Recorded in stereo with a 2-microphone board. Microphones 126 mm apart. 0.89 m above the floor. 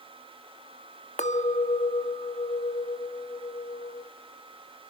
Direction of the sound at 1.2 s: 80° left.